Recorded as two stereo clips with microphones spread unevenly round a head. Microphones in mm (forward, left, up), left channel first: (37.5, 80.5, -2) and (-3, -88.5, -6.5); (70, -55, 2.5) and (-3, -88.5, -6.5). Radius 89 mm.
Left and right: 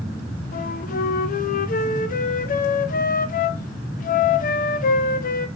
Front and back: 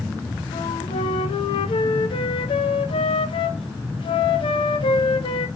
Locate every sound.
0.5 s a flute: 35° left, 0.5 m